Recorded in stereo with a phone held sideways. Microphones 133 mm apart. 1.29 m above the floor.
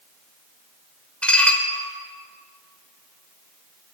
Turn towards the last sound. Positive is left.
turn(degrees=10)  # may be behind; listen again after turning